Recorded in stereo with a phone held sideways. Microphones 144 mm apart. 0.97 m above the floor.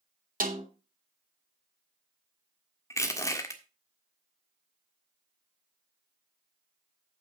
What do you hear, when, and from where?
0.4 s a snare drum: 75° right (ahead or behind), 2.5 m
2.9 s crushing: 20° left (ahead or behind), 1.6 m